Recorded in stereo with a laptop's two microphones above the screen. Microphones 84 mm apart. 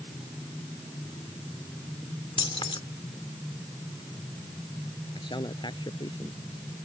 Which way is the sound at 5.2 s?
65° left (ahead or behind).